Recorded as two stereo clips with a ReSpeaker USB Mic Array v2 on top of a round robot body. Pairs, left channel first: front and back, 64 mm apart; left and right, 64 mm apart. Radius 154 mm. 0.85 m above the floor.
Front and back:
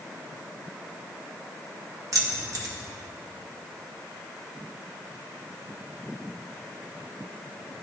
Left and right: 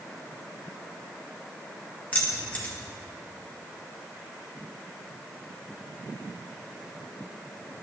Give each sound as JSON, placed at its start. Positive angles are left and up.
{"t": 2.1, "sound": "keys jangling", "azimuth_deg": 155, "distance_m": 1.6}